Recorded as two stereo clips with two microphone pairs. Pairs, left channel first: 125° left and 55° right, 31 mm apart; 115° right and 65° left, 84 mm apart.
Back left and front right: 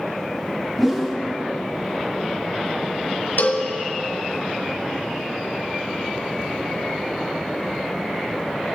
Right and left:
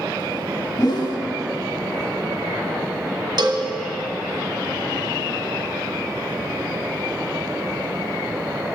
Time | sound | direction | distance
0.8 | a whoosh | 135° right | 1.5 m
3.4 | a cowbell | 100° left | 1.5 m